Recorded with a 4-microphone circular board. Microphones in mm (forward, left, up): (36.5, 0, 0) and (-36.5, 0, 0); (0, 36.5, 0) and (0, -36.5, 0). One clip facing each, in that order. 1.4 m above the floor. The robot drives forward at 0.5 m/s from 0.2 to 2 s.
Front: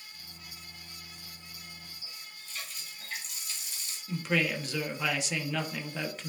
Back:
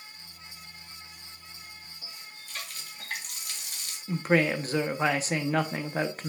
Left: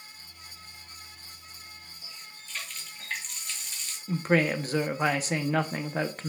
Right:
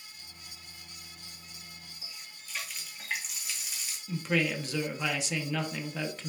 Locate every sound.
2.0 s a running tap: 170° right, 1.7 m
4.1 s a woman speaking: 135° left, 1.2 m